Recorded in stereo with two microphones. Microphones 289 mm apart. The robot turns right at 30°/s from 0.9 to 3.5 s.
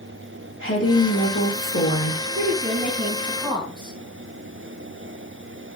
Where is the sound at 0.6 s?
45° left, 3.5 m; by 2.2 s 85° left, 3.5 m.